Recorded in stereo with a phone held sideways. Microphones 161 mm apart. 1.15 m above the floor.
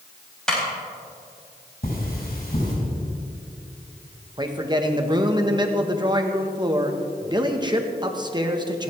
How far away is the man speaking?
About 1.4 m.